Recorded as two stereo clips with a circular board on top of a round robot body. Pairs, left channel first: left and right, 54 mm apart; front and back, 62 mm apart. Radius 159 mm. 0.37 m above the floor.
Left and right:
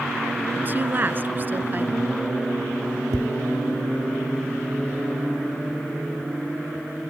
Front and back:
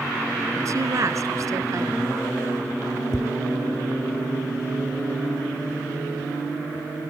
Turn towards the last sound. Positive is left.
turn(degrees=-85)